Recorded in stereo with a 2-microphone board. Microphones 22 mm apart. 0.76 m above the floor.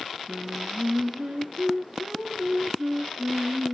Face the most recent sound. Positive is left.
turn(degrees=-85)